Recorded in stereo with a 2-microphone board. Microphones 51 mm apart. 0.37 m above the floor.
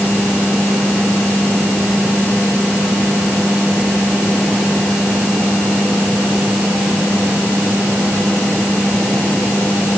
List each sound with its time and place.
Only background noise.